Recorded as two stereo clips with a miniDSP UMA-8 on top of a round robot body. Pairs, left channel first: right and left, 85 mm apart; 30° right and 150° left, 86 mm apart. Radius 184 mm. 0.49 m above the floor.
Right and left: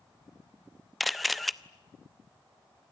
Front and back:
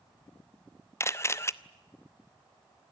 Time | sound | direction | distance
1.0 | a camera shutter | straight ahead | 1.1 m